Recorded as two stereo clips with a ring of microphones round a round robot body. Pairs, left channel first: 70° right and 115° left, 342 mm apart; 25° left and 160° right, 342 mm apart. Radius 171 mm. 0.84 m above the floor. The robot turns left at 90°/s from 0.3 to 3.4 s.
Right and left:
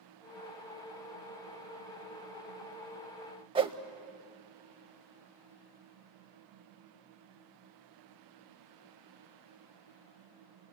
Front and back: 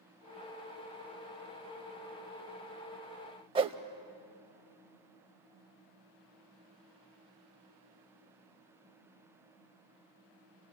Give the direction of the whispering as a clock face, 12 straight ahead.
No whispering in this recording.